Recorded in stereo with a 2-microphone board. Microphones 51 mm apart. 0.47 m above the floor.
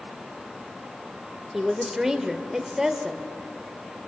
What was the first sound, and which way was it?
A woman speaking, 10° right (ahead or behind).